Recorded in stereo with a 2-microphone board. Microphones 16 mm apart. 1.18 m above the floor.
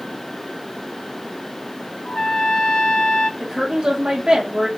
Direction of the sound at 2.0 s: 55° left (ahead or behind).